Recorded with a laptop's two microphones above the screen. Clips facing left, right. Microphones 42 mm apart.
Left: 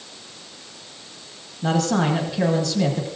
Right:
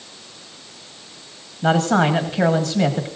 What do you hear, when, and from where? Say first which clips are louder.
1.6 s a man speaking: right 4 dB; 35° right (ahead or behind), 1.2 m